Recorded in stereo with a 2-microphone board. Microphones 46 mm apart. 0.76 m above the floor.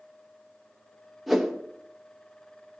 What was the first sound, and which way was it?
A whoosh, 5° right (ahead or behind).